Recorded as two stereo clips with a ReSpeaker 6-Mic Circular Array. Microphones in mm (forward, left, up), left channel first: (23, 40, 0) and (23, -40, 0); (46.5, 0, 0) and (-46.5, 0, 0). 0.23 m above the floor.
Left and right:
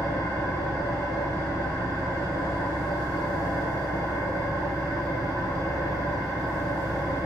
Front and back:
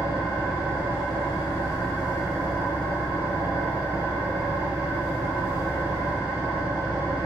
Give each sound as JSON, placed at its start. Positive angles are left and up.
{"t": 0.0, "sound": "an engine running", "azimuth_deg": -50, "distance_m": 3.5}